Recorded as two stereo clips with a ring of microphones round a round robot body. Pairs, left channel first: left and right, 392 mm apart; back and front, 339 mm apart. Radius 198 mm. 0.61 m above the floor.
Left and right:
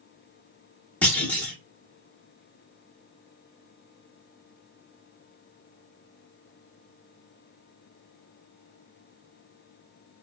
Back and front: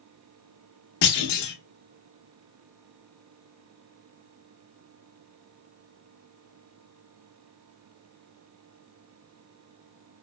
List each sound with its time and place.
1.0 s a clunk: 175° left, 0.9 m